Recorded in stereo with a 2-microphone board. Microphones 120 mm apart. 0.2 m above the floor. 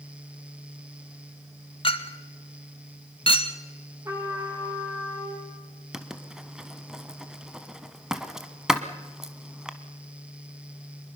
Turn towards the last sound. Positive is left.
turn(degrees=-5)  # may be behind; listen again after turning